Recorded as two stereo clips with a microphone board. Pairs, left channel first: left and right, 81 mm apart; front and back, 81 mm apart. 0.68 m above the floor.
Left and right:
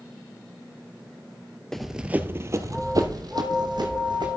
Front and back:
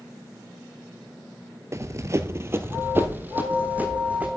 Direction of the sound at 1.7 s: 170° left.